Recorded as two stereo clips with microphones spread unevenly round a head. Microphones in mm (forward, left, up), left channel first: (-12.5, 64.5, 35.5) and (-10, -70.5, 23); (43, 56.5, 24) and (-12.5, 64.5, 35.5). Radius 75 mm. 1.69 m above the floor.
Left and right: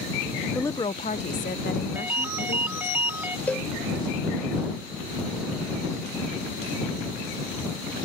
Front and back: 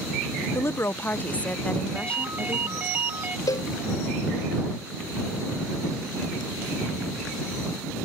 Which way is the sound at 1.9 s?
165° right.